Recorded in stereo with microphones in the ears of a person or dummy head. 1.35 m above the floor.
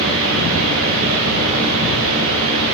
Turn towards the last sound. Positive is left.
turn(degrees=-65)  # may be behind; listen again after turning